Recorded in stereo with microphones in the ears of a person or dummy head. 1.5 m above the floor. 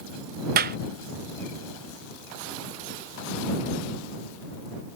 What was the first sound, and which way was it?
A clap, 50° right (ahead or behind).